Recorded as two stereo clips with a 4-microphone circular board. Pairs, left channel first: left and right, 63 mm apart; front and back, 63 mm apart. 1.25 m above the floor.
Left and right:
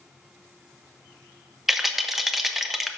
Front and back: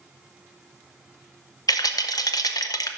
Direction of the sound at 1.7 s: Straight ahead.